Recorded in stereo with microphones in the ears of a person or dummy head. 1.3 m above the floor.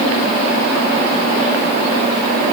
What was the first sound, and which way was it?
Only background noise.